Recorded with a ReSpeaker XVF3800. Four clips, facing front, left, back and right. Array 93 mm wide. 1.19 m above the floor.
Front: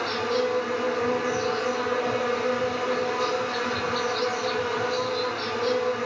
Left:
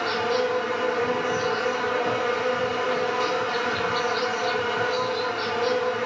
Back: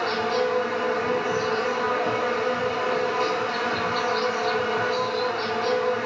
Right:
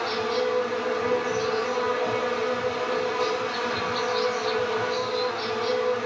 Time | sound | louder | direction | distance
0.0 | an insect | left 2 dB, back 2 dB | 130° left | 1.1 m